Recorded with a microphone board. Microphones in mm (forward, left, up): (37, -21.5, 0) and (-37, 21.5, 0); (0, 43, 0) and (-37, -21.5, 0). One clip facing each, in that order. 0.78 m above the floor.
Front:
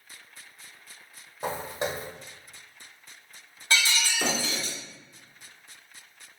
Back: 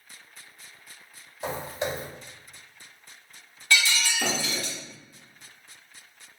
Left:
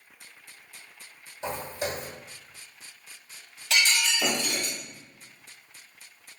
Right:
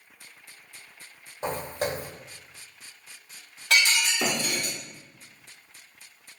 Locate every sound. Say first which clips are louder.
1.4 s footsteps: even, right 3 dB; 85° right, 1.6 m
3.7 s breaking glass: back 2 dB, right 2 dB; 90° right, 1.4 m